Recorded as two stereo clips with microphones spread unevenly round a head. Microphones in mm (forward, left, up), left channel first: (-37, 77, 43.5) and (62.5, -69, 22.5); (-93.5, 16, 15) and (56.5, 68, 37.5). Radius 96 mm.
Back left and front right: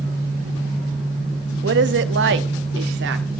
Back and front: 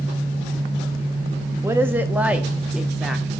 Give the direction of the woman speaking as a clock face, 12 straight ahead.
2 o'clock.